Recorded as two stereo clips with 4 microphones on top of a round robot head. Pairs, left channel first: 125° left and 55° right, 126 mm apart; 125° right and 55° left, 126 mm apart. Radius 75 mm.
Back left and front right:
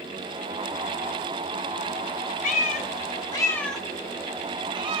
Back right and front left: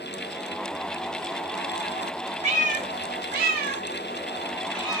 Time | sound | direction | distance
2.4 | a cat meowing | 95° left | 0.9 m